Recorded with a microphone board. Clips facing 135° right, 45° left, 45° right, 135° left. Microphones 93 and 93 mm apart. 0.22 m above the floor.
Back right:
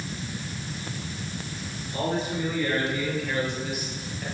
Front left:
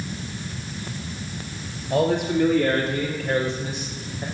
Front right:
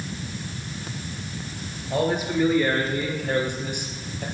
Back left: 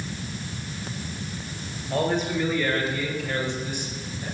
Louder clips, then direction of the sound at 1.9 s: Front left 7 dB, front right 1 dB; 40° left.